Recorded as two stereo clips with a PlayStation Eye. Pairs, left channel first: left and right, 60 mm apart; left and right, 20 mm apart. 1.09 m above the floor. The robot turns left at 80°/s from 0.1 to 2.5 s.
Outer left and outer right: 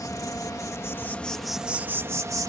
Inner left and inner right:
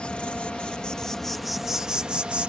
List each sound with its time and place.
0.0 s an insect: 105° left; by 2.5 s 85° right